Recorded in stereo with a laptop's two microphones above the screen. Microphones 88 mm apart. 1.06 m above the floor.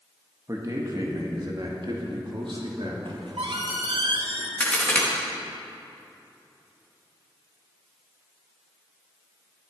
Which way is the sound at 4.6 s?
15° left (ahead or behind).